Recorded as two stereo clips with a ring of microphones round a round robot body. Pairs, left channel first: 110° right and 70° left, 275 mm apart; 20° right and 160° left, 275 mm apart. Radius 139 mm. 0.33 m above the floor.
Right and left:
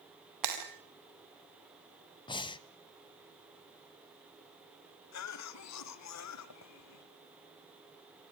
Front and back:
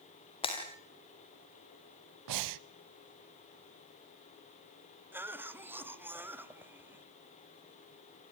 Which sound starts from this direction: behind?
Breathing, at 2.3 s.